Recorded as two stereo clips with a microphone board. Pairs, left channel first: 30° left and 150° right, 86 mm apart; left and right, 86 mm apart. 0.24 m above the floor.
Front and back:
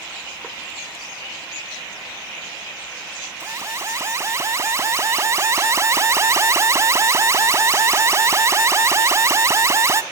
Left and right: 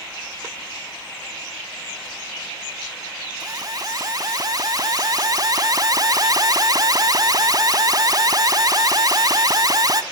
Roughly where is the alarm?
Right.